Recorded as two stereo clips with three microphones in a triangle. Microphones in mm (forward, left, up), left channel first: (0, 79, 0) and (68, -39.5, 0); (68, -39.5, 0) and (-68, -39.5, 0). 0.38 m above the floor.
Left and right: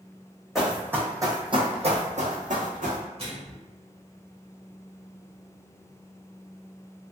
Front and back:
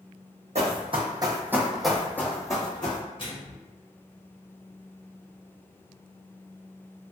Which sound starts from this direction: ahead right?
A microwave, at 3.2 s.